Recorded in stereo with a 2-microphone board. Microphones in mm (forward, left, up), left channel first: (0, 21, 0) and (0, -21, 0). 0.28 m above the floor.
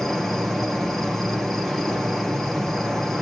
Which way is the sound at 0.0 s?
5° left (ahead or behind).